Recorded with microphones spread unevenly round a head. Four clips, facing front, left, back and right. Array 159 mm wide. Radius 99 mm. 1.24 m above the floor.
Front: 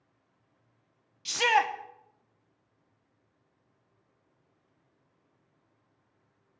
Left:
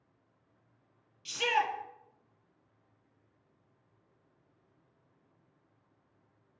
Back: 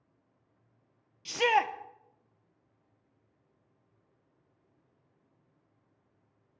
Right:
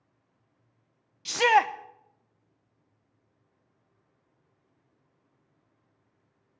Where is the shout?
120° right, 1.0 m.